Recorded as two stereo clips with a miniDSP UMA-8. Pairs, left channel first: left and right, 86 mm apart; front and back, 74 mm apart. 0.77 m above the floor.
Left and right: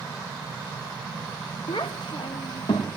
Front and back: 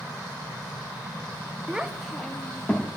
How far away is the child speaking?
About 0.8 m.